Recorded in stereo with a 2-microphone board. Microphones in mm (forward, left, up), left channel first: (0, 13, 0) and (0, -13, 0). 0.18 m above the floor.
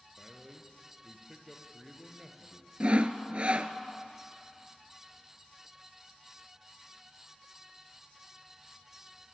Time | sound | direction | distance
0.2 | a man speaking | 10° right (ahead or behind) | 4 m
2.8 | sawing | 45° right (ahead or behind) | 1.2 m